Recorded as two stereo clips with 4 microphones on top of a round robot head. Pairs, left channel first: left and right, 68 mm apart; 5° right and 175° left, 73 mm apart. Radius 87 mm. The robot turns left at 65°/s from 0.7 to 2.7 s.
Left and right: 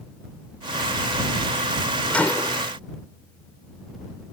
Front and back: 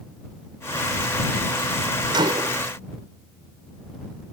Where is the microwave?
165° left; by 2.6 s 135° left.